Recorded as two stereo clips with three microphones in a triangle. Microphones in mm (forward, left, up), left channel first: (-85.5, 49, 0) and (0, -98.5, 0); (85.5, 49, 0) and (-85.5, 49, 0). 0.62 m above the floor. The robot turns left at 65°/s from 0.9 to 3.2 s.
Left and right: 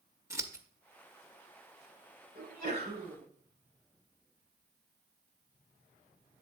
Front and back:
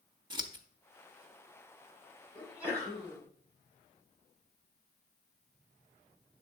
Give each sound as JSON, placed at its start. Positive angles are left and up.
{"t": 0.3, "sound": "scissors", "azimuth_deg": -130, "distance_m": 0.7}
{"t": 2.4, "sound": "a sneeze", "azimuth_deg": -80, "distance_m": 2.5}